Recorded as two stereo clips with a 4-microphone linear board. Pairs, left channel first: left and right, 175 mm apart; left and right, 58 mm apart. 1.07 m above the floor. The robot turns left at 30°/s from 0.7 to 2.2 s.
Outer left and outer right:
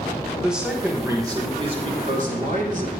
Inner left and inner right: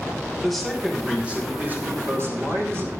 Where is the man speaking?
5° right, 4 m; by 2.9 s 50° right, 4 m.